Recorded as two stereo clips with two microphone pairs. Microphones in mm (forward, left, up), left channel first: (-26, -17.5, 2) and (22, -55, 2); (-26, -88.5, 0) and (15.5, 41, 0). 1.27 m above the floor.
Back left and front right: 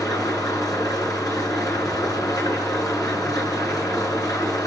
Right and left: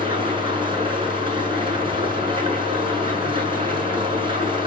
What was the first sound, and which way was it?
An engine running, 125° left.